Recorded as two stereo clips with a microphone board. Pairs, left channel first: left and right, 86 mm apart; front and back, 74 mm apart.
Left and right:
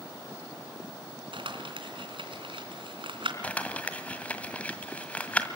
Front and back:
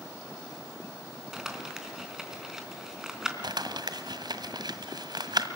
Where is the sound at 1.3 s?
95° right, 3.5 m.